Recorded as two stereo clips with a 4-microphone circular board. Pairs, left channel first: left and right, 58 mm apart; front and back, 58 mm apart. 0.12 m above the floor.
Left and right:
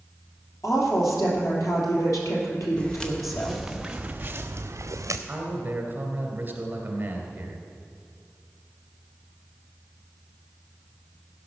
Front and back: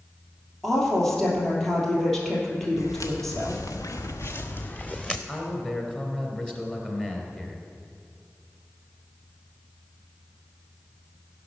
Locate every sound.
0.6 s a woman speaking: 85° left, 3 m
2.8 s footsteps: 15° left, 1.6 m; by 5.2 s 75° right, 1.1 m
5.3 s a man speaking: 55° right, 2 m